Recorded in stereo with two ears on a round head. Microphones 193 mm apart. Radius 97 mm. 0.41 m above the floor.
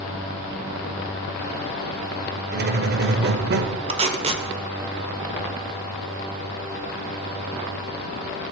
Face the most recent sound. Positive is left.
turn(degrees=-30)  # may be behind; listen again after turning